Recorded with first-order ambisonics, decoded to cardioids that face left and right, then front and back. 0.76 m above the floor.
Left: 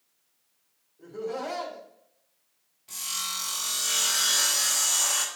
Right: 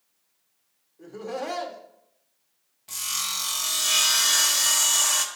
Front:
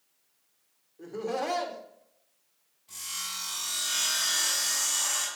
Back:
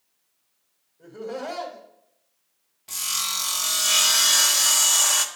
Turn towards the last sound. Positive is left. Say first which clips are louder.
# right 3 dB, back 9 dB
turn(degrees=-160)